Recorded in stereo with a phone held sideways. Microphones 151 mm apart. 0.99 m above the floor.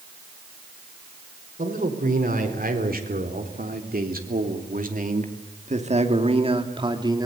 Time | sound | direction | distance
1.6 | a man speaking | 65° right (ahead or behind) | 4.5 m